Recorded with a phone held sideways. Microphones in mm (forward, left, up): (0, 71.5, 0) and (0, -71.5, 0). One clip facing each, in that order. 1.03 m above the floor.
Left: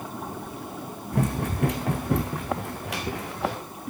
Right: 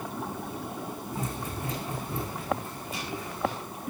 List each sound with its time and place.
1.1 s running footsteps: 65° left (ahead or behind), 3 m; by 3.6 s 75° left (ahead or behind), 4.5 m